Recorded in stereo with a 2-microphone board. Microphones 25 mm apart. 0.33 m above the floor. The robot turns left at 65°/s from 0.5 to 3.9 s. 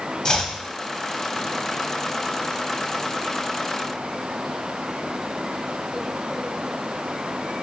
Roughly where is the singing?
No singing in this recording.